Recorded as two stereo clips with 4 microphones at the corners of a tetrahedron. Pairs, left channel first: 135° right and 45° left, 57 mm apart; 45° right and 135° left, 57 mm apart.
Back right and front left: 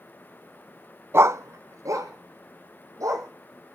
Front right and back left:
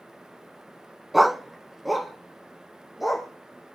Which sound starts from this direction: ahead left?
A dog barking, at 1.1 s.